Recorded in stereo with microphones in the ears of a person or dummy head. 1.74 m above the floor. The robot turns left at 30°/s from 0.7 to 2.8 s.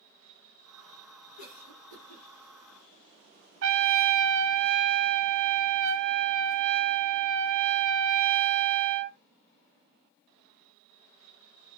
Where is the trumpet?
75° right (ahead or behind), 0.6 m.